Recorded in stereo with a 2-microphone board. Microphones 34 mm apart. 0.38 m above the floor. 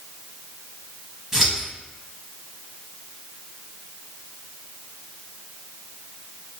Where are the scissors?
15° right (ahead or behind), 1.8 m.